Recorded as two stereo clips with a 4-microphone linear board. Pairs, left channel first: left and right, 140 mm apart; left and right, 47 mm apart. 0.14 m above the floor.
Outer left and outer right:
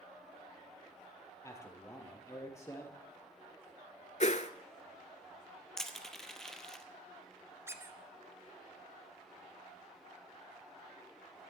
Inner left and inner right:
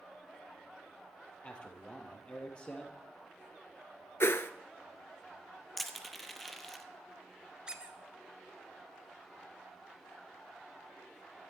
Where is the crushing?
5° left (ahead or behind), 1.2 m.